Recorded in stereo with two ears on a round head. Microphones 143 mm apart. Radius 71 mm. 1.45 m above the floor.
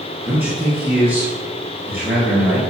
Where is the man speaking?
15° right (ahead or behind), 2 m.